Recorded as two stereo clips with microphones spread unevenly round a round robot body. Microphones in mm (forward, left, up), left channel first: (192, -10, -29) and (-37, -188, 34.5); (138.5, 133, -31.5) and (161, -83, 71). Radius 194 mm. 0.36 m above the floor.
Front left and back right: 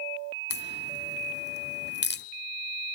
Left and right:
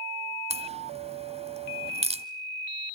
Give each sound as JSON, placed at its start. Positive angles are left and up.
{"t": 0.5, "sound": "a crack", "azimuth_deg": -15, "distance_m": 1.5}